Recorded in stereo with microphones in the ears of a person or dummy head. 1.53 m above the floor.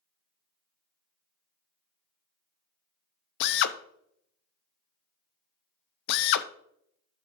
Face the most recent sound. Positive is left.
turn(degrees=65)  # may be behind; listen again after turning